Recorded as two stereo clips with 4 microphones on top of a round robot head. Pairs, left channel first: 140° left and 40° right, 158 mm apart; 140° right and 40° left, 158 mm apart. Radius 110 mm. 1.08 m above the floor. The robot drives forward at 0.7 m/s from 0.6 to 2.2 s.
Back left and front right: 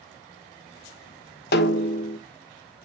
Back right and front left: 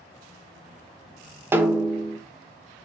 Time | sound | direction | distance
1.5 | a snare drum | 115° left | 1.1 m